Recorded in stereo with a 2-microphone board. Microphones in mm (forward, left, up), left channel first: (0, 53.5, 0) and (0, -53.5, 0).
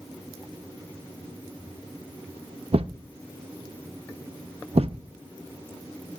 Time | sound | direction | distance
2.7 | a thud | 80° right | 0.6 m